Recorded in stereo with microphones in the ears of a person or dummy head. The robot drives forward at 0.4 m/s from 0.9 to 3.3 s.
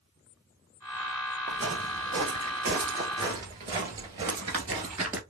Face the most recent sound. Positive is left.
turn(degrees=-15)  # may be behind; listen again after turning